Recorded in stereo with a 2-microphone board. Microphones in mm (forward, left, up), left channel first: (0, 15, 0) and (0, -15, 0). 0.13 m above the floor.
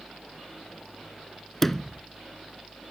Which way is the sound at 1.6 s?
10° left (ahead or behind).